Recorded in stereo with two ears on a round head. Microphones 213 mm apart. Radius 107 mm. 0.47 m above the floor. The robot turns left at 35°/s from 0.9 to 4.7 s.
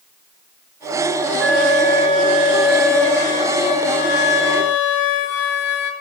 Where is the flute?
130° right, 1.8 m; by 5.9 s 115° left, 1.8 m.